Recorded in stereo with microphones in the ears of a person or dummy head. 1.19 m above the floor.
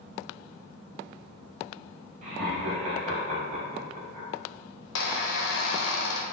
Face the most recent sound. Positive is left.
turn(degrees=75)  # may be behind; listen again after turning